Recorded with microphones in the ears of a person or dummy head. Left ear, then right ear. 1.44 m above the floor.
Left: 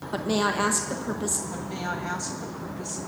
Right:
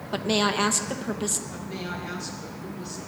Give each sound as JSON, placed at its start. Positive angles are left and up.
{"t": 0.1, "sound": "a woman speaking", "side_deg": -10, "distance_m": 0.9}
{"t": 1.5, "sound": "a woman speaking", "side_deg": 30, "distance_m": 2.0}